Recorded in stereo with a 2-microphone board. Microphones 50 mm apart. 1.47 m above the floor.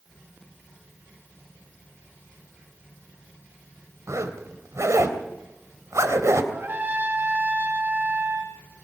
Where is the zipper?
70° right (ahead or behind), 3 m.